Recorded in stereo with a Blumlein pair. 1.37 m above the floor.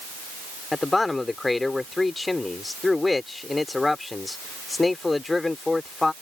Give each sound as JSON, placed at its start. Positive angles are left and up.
{"t": 0.7, "sound": "a man speaking", "azimuth_deg": 10}